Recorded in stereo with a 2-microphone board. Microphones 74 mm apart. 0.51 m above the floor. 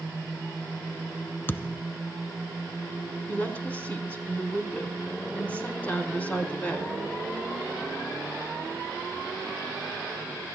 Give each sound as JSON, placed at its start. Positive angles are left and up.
{"t": 1.5, "sound": "a thud", "side_deg": 30, "distance_m": 0.7}
{"t": 3.3, "sound": "a woman speaking", "side_deg": 20, "distance_m": 4.5}